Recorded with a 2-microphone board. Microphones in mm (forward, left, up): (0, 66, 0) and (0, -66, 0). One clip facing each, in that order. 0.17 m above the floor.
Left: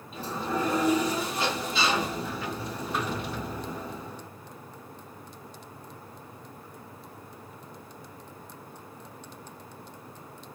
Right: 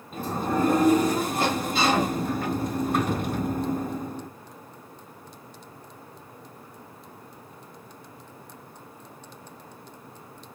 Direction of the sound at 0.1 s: 50° right (ahead or behind).